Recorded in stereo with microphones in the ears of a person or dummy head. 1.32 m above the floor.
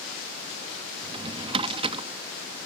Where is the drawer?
35° right (ahead or behind).